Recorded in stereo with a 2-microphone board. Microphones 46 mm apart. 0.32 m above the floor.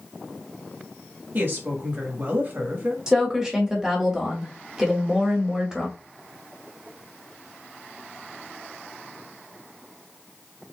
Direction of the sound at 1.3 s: 45° right (ahead or behind).